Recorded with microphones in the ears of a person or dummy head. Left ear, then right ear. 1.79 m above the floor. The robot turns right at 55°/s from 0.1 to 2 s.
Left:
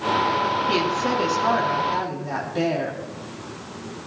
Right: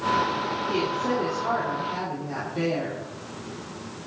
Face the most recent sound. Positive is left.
turn(degrees=125)